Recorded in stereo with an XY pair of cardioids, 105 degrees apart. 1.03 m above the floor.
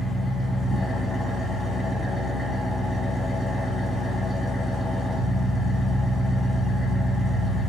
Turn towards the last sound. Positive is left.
turn(degrees=35)